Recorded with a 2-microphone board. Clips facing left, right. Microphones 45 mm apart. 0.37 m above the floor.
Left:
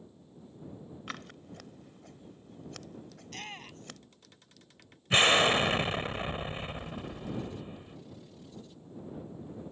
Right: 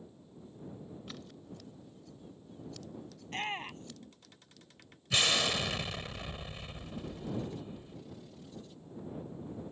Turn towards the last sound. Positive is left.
turn(degrees=40)  # may be behind; listen again after turning